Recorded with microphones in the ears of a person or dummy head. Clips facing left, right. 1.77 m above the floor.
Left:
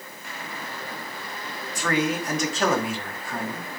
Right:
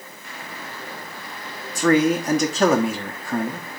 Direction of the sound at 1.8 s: 40° right (ahead or behind).